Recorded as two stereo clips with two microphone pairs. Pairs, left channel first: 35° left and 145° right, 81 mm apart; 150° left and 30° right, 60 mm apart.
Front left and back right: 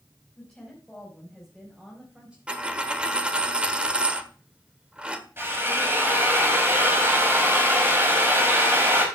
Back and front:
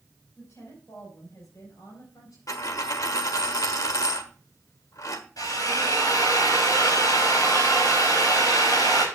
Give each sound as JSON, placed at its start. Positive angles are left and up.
{"t": 0.4, "sound": "a woman speaking", "azimuth_deg": 110, "distance_m": 5.5}
{"t": 2.5, "sound": "a dropped coin", "azimuth_deg": 145, "distance_m": 1.2}
{"t": 5.4, "sound": "a drill", "azimuth_deg": 155, "distance_m": 4.0}